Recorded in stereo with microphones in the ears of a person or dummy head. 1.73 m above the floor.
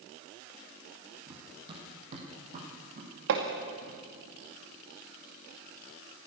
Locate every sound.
1.3 s running footsteps: 25° right (ahead or behind), 3.5 m; by 4.3 s 60° right (ahead or behind), 6 m
3.3 s hammering: 70° right (ahead or behind), 2 m